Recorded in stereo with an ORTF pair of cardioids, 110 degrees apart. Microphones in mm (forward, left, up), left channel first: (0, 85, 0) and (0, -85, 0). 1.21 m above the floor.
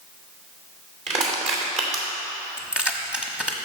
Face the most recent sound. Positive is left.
turn(degrees=-5)